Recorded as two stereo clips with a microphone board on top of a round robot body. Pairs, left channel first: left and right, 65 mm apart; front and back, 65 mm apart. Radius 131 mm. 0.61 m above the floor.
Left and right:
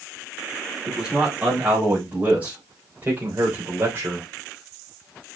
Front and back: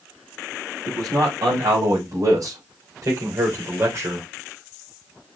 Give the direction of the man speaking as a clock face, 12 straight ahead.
6 o'clock.